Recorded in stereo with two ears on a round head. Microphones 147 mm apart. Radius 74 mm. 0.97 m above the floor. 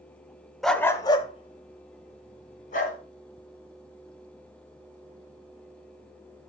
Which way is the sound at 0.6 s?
Centre (ahead or behind).